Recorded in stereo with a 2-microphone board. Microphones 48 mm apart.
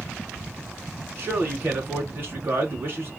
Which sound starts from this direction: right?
A man speaking, at 1.2 s.